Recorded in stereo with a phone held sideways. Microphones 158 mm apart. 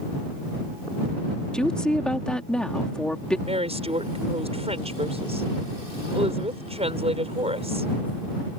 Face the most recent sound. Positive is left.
turn(degrees=-40)  # may be behind; listen again after turning